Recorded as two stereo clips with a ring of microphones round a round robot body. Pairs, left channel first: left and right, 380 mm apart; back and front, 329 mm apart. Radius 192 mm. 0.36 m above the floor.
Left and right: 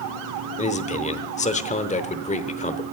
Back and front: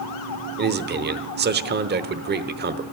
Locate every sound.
0.6 s a man speaking: 30° left, 0.9 m